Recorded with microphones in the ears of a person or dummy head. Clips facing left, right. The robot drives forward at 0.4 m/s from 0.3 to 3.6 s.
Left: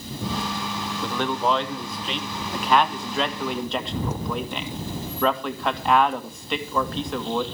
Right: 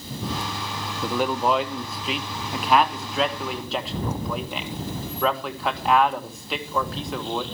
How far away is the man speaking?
About 0.8 m.